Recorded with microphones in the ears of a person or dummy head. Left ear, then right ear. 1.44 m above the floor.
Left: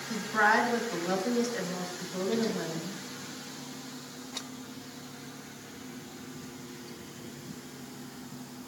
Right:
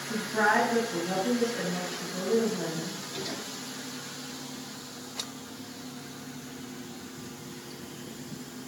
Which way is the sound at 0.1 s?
30° left (ahead or behind).